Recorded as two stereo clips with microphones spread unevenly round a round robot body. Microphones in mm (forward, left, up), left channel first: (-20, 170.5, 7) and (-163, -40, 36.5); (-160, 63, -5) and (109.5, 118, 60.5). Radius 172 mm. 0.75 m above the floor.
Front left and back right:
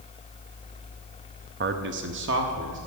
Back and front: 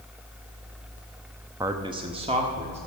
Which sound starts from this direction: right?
A man speaking, at 1.6 s.